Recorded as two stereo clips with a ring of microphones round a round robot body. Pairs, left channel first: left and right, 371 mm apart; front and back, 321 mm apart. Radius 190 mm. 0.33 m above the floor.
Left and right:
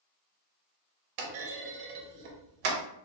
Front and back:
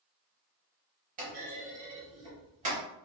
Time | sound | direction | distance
1.2 | a clunk | 110° right | 0.7 m